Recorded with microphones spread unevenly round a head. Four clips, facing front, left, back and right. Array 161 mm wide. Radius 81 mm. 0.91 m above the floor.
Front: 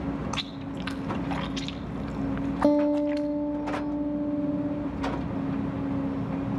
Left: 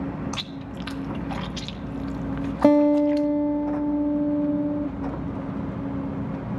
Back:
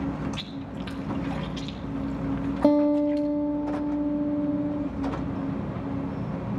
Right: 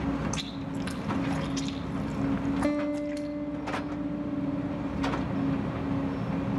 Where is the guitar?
50° left, 0.6 m.